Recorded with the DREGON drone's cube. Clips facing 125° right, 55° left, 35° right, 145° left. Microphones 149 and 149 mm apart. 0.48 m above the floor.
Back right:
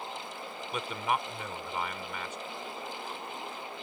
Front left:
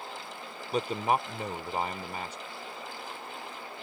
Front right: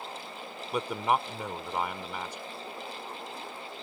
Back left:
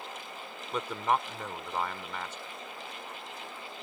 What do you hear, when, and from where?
0.7 s a man speaking: 35° left